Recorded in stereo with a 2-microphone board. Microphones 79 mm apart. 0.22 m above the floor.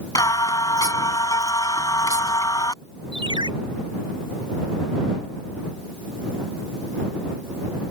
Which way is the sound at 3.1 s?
80° right.